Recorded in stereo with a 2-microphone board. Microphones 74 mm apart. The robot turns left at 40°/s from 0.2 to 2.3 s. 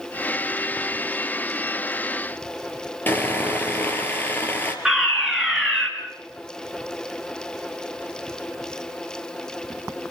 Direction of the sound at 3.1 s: 25° left (ahead or behind).